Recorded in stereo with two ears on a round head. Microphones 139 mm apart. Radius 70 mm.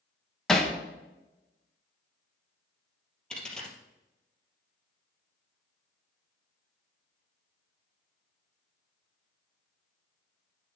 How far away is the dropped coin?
About 2 m.